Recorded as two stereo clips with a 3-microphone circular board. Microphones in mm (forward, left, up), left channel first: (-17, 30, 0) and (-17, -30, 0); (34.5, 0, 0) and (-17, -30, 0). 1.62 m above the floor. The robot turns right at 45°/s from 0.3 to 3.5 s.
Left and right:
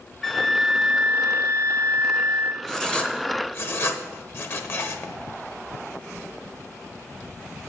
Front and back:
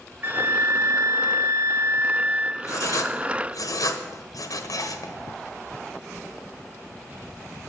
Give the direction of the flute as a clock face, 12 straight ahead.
6 o'clock.